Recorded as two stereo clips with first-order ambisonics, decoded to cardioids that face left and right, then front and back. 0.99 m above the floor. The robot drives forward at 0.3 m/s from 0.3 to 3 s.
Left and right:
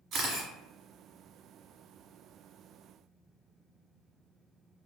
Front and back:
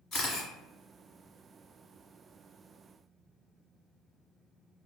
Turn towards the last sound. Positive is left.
turn(degrees=-105)